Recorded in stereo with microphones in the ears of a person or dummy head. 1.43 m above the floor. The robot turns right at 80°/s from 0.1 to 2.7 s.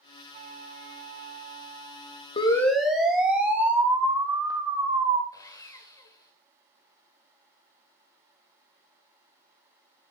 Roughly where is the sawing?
Left.